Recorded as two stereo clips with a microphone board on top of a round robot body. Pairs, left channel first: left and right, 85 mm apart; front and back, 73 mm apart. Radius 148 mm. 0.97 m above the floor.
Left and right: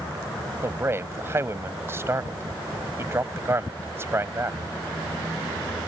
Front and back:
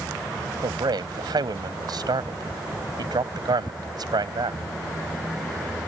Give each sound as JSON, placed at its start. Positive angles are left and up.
{"t": 0.6, "sound": "a man speaking", "azimuth_deg": -155}